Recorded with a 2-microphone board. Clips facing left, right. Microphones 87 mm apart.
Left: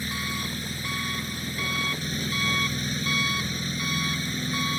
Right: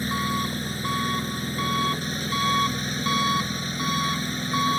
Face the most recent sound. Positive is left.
turn(degrees=-40)  # may be behind; listen again after turning